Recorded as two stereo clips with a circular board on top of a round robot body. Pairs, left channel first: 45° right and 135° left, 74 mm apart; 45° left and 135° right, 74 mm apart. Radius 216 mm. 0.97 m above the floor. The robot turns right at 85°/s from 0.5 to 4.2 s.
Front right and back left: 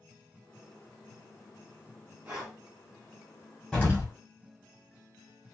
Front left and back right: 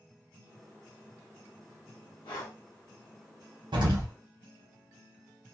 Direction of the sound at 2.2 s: 60° left.